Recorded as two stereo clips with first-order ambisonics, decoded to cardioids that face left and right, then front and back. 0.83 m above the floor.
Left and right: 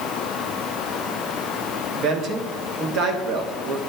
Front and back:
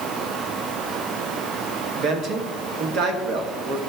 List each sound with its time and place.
1.9 s a man speaking: 135° right, 1.2 m